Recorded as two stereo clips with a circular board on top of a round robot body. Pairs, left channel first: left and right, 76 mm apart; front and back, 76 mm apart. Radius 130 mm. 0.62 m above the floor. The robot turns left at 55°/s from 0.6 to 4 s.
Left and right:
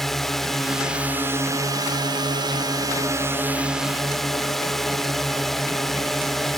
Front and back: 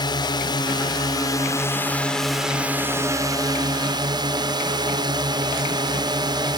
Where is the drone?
5° left; by 6.6 s 175° left.